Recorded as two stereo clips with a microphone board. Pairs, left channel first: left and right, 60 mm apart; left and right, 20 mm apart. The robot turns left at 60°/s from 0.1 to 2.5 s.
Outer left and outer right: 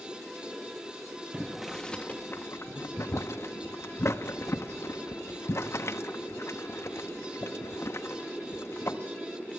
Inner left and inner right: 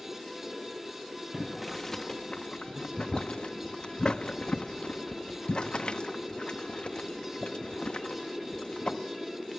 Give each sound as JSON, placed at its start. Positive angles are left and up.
{"t": 1.3, "sound": "boiling", "side_deg": -20, "distance_m": 1.1}